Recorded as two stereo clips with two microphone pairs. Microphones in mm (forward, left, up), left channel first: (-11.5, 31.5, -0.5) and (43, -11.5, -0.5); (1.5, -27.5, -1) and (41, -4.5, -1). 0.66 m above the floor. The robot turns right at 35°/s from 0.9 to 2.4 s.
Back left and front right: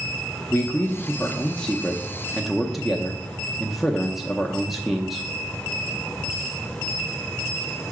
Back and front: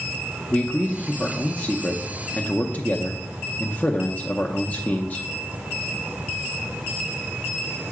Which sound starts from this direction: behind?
A man speaking, at 0.5 s.